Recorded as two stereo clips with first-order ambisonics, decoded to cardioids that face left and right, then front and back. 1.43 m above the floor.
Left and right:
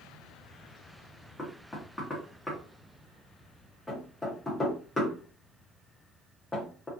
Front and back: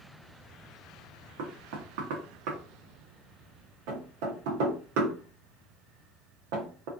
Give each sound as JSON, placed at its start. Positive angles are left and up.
{"t": 1.4, "sound": "knocking", "azimuth_deg": 170, "distance_m": 0.9}